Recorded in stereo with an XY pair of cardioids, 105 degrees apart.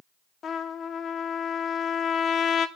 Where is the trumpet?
50° left, 1.0 m.